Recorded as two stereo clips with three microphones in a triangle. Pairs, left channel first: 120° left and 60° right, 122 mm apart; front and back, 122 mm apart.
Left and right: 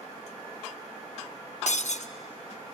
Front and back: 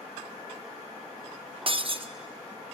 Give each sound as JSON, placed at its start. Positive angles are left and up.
{"t": 1.7, "sound": "breaking glass", "azimuth_deg": 140, "distance_m": 0.6}